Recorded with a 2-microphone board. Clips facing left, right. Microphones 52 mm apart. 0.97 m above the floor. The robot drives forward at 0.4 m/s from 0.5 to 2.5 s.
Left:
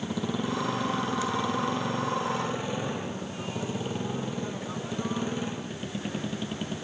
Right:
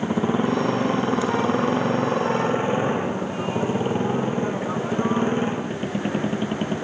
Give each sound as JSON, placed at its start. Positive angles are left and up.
{"t": 0.0, "sound": "a motorcycle", "side_deg": -35}